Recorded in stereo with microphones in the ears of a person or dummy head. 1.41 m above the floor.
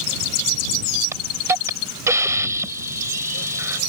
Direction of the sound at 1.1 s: 15° right (ahead or behind).